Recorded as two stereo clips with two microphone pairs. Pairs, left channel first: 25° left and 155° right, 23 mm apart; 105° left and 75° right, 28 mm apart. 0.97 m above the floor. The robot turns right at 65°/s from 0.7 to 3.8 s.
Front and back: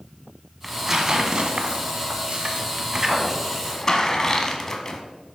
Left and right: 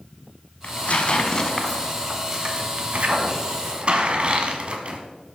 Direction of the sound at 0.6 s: 115° left.